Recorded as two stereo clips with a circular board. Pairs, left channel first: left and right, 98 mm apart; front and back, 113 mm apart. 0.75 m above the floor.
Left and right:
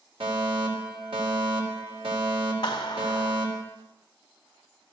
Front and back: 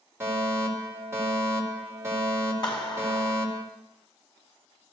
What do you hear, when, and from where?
0.2 s a fire alarm: 115° right, 4.5 m
2.6 s a clap: 45° left, 4.5 m